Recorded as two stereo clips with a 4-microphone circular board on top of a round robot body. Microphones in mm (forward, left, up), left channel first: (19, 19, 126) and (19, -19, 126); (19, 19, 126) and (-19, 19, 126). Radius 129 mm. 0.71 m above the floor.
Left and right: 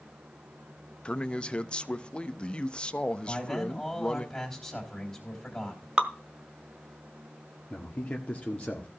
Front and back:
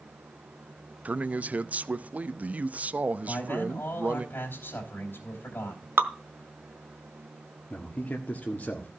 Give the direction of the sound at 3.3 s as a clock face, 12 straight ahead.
11 o'clock.